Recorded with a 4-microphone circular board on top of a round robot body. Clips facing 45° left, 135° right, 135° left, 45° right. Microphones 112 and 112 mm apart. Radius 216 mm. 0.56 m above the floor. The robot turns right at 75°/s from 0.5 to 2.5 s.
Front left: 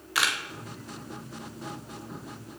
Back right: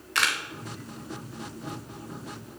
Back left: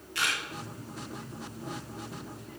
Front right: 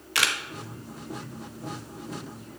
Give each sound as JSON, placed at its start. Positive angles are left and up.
{"t": 0.1, "sound": "a camera shutter", "azimuth_deg": -40, "distance_m": 1.0}